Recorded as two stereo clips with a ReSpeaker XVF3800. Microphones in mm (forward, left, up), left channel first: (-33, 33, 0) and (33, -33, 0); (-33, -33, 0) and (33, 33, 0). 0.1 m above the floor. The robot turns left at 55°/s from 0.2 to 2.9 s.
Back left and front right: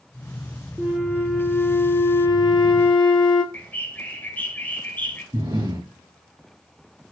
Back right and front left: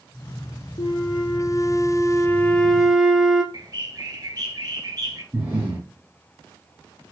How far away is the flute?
About 0.6 m.